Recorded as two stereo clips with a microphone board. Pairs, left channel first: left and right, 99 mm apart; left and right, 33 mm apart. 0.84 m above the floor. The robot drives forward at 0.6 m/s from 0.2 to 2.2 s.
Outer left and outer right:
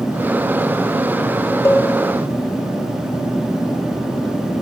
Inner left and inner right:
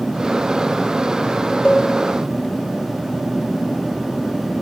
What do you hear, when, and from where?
1.6 s a cowbell: 25° left (ahead or behind), 0.7 m